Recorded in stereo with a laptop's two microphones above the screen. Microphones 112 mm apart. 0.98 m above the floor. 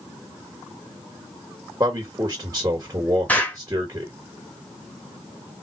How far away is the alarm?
No alarm in this recording.